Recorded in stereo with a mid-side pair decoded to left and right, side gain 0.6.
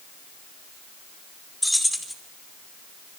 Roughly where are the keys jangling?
Ahead.